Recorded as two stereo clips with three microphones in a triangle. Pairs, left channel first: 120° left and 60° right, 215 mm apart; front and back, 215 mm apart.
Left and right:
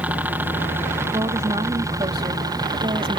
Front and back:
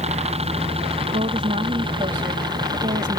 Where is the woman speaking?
125° right.